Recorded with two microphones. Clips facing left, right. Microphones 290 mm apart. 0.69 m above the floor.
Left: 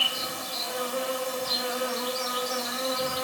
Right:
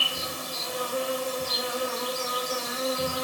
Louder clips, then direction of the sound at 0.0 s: Right 1 dB; 35° right (ahead or behind).